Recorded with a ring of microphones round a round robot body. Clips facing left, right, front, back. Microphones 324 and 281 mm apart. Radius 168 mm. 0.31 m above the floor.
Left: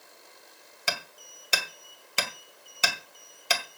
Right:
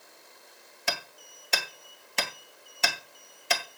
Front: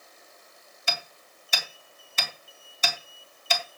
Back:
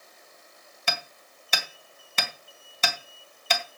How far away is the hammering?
About 2 m.